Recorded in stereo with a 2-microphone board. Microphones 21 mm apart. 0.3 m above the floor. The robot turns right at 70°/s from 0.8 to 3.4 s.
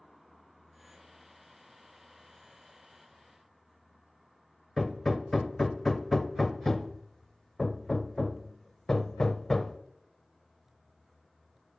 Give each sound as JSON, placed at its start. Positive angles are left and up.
{"t": 4.8, "sound": "hammering", "side_deg": 20, "distance_m": 0.6}